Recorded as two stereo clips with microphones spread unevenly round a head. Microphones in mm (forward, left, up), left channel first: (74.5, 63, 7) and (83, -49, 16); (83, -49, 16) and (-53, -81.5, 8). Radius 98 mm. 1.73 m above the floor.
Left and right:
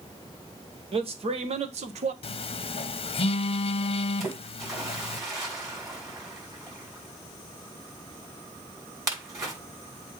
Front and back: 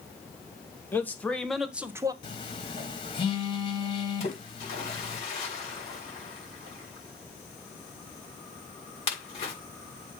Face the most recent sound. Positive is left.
turn(degrees=-25)